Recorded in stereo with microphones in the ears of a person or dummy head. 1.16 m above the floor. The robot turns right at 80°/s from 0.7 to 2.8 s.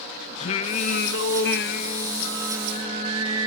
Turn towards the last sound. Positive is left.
turn(degrees=-150)